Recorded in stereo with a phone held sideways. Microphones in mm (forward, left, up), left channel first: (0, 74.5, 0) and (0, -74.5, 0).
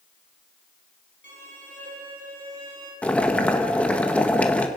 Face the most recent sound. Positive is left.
turn(degrees=10)  # may be behind; listen again after turning